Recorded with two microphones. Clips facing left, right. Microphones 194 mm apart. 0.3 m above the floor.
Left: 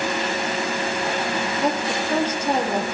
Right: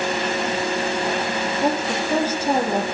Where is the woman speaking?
10° right (ahead or behind), 6.5 m.